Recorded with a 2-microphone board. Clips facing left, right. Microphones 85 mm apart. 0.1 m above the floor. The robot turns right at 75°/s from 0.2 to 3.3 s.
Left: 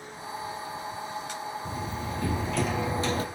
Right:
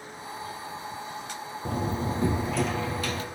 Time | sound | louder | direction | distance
1.6 | a door slam | right 4 dB | 70° right | 1.7 m